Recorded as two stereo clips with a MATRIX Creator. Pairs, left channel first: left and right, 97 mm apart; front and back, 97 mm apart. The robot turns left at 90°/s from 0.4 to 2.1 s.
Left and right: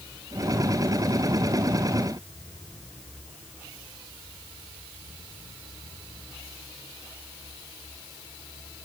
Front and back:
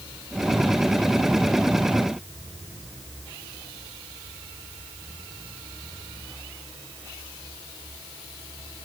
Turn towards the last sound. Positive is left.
No sound to turn to.